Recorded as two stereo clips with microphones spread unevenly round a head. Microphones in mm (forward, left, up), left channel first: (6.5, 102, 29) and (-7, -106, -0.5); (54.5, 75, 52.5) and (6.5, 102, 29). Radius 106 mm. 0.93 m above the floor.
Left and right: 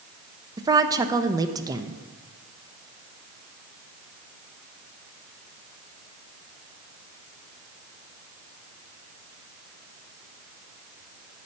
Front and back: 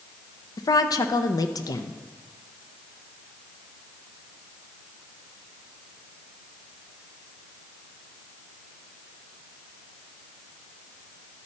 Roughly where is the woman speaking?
Ahead right.